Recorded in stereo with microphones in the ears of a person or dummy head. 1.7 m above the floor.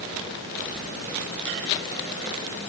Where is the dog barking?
I don't hear a dog barking.